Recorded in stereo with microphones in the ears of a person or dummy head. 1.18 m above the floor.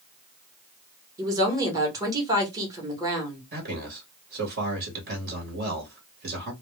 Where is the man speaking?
55° right (ahead or behind), 1.1 m.